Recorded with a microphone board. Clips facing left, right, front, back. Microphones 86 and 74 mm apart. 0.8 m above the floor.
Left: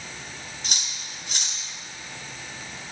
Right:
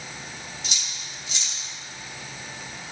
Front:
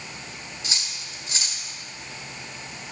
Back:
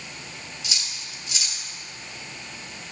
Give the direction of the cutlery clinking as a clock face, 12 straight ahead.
10 o'clock.